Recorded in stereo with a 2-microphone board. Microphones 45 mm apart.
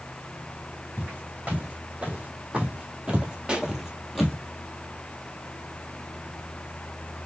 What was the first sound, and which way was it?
Footsteps, 30° right (ahead or behind).